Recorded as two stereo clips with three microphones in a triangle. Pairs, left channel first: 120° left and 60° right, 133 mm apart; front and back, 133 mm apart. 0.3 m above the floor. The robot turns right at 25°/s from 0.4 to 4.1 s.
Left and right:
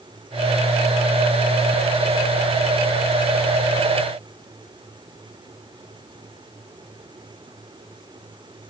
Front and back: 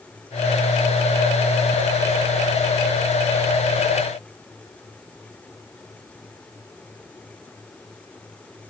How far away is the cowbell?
I don't hear a cowbell.